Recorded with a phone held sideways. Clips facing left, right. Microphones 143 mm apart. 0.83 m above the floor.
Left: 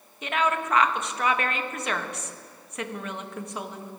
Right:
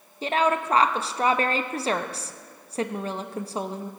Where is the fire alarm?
I don't hear a fire alarm.